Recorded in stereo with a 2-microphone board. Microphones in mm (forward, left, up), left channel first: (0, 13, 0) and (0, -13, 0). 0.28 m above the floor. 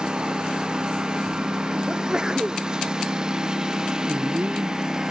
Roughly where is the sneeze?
Right.